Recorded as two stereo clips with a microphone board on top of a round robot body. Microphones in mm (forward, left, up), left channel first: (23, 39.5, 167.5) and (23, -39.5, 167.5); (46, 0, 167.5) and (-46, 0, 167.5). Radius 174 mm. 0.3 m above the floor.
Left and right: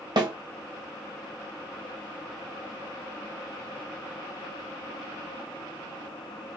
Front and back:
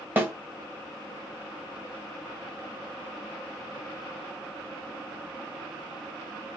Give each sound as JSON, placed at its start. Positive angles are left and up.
{"t": 0.2, "sound": "a snare drum", "azimuth_deg": -115, "distance_m": 2.0}